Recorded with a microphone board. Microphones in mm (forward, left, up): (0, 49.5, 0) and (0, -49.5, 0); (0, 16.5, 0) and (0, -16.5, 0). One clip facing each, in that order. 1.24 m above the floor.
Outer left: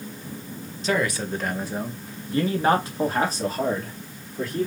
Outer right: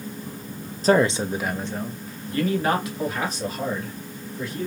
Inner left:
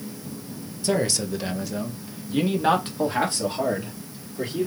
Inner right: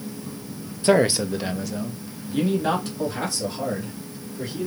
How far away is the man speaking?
About 0.5 m.